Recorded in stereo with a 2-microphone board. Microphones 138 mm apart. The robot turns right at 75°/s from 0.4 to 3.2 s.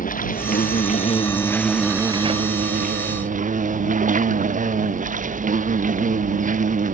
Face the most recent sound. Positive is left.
turn(degrees=-70)